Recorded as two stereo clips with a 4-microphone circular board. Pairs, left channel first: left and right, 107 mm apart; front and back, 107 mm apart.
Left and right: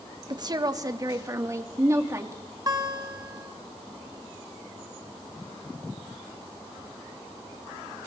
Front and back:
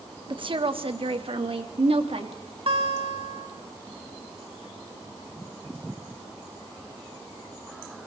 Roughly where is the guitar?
Behind right.